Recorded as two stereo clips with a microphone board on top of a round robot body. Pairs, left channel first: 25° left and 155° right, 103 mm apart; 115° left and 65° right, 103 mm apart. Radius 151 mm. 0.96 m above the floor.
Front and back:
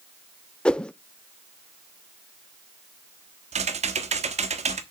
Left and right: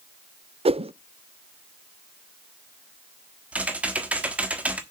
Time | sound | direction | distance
0.7 | a whoosh | 55° right | 0.6 m
3.5 | typing on a keyboard | 145° right | 1.2 m